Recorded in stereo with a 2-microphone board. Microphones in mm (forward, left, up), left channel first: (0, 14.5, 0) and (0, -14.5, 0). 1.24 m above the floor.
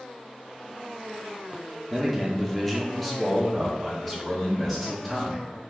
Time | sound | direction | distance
1.9 | a man speaking | 5° left (ahead or behind) | 0.6 m